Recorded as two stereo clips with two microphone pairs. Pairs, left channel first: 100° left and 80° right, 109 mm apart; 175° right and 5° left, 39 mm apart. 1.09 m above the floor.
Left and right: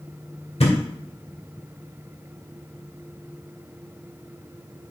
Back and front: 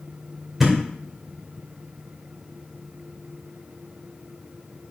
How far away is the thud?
About 2.0 m.